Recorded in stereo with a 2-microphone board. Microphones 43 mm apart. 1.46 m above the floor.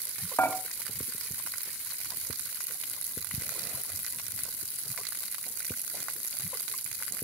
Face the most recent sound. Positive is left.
turn(degrees=70)  # may be behind; listen again after turning